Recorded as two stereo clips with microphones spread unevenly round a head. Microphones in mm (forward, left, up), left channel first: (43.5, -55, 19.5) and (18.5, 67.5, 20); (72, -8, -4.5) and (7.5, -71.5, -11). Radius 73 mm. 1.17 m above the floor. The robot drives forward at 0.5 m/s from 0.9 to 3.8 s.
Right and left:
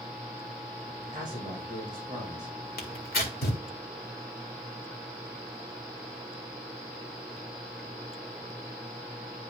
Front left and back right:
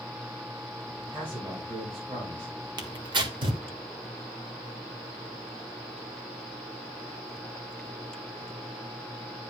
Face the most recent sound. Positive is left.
turn(degrees=-115)